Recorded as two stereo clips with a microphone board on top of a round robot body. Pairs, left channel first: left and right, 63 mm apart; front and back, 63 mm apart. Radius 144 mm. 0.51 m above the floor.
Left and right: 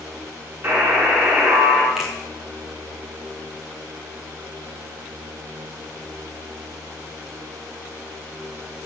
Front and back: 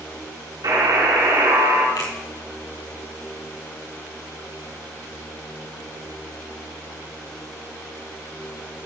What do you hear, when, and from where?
0.6 s a buzzer: 155° right, 5 m
2.0 s a finger snap: 5° right, 4.5 m